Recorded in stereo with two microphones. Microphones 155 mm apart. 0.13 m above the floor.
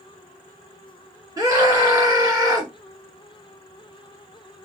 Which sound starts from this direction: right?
A scream, at 1.4 s.